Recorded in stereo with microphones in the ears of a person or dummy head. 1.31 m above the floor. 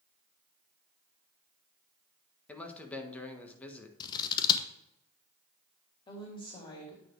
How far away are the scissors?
About 0.8 m.